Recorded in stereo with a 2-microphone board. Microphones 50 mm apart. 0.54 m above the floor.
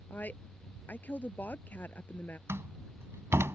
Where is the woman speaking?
35° left (ahead or behind).